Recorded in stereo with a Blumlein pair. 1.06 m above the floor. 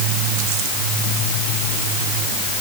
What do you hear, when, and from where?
Only background noise.